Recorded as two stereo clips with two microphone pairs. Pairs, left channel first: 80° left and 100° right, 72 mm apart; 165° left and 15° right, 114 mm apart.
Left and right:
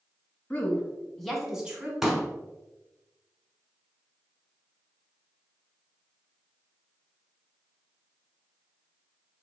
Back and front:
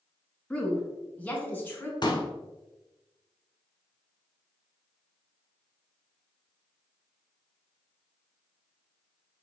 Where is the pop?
175° left, 0.9 m.